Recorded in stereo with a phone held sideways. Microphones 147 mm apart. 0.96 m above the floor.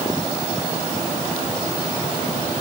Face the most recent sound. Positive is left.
No sound to turn to.